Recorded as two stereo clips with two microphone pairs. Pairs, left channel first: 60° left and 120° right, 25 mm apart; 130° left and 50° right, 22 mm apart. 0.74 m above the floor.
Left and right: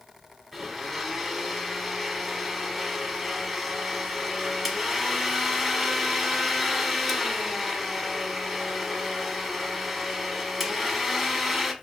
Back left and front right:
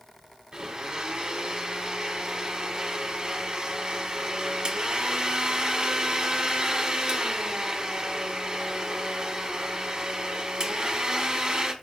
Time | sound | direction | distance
0.5 | a blender | 35° right | 0.8 m